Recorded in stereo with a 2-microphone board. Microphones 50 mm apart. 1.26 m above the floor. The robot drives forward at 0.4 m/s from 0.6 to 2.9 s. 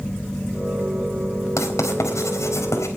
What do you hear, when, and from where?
1.6 s writing: 85° left, 4 m